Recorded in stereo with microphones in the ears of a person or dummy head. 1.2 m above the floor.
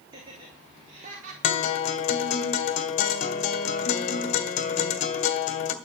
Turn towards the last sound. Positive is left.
turn(degrees=45)  # may be behind; listen again after turning